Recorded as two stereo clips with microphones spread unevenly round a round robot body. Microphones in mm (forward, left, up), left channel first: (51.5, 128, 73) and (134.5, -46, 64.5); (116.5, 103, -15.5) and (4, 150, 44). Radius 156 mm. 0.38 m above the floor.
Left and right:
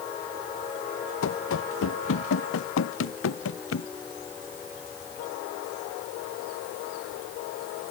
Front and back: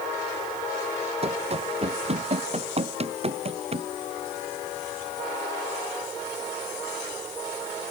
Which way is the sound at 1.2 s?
125° left.